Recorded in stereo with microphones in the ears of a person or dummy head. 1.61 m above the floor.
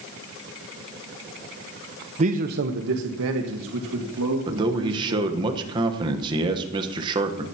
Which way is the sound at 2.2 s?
35° right (ahead or behind).